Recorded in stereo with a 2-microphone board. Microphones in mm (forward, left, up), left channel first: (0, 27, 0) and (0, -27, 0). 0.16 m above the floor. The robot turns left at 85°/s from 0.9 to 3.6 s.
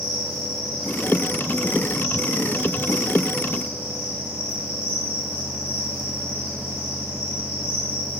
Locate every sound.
0.0 s an insect: straight ahead, 2 m; by 8.2 s 130° left, 2 m